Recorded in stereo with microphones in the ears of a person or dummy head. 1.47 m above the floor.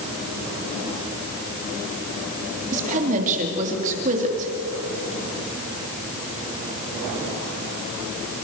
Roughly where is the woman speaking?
Right.